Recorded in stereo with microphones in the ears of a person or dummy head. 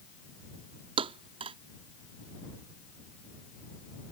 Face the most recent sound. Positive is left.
turn(degrees=-30)  # may be behind; listen again after turning